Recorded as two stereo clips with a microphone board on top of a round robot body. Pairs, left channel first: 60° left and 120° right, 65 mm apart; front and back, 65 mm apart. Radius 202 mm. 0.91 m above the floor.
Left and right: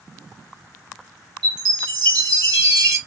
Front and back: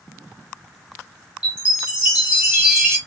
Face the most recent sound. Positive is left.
turn(degrees=-110)